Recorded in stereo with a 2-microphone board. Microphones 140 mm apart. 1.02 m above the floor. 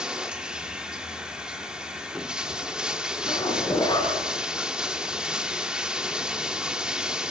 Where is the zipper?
35° left (ahead or behind), 6 m.